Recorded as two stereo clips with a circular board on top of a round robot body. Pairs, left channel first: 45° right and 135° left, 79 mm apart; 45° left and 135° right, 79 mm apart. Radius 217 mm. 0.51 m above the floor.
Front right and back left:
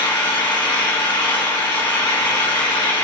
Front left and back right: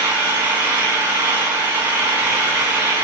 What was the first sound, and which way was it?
An engine running, 70° right.